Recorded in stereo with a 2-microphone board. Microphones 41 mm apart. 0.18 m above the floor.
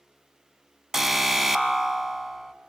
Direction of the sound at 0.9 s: 10° right (ahead or behind).